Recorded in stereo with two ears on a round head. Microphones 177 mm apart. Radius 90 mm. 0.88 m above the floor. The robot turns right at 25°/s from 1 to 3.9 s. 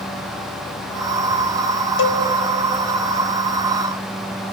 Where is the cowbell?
70° left (ahead or behind), 1.4 m; by 2.2 s 65° left (ahead or behind), 1.4 m.